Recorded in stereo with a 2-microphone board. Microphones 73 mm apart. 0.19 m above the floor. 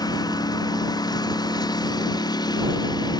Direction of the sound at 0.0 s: 65° left (ahead or behind).